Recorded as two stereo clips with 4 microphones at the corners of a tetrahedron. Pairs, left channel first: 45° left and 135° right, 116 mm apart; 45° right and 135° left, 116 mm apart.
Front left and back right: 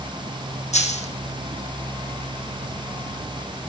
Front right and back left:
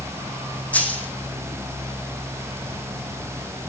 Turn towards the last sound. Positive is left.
turn(degrees=30)